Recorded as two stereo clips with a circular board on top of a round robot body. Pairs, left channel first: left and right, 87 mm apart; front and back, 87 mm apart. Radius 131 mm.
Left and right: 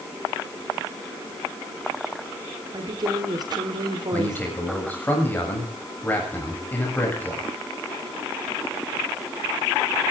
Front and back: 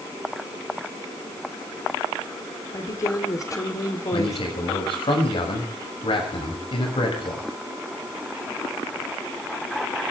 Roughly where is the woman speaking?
Ahead right.